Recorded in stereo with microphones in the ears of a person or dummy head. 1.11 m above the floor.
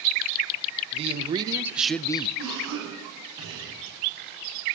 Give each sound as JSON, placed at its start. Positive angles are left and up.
{"t": 0.9, "sound": "a man speaking", "side_deg": -35, "distance_m": 0.9}
{"t": 2.4, "sound": "a cough", "side_deg": -20, "distance_m": 7.5}